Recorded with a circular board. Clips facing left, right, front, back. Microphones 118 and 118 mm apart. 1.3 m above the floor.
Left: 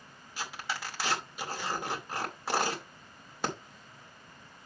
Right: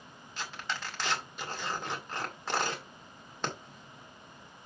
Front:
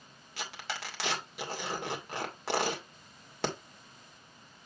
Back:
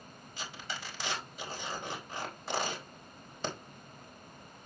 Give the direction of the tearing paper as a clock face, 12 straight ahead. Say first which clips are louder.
Left 1 dB, front 3 dB; 12 o'clock.